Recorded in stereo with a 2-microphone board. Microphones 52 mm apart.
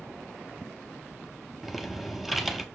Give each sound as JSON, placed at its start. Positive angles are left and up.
{"t": 1.6, "sound": "typing on a keyboard", "side_deg": 0, "distance_m": 0.5}